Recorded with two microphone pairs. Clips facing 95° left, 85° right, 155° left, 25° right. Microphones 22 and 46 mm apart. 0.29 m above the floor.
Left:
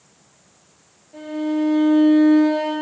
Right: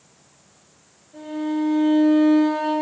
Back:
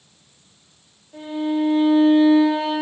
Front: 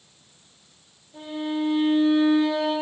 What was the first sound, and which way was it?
A violin, 145° left.